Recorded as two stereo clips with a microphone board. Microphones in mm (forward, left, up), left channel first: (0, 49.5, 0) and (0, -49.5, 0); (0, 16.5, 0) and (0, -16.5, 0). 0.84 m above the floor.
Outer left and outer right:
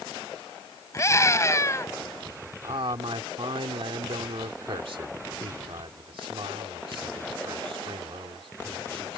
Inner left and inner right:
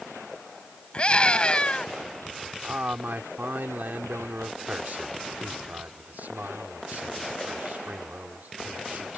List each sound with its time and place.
0.9 s a scream: 35° left (ahead or behind)
2.6 s a man speaking: 70° right (ahead or behind)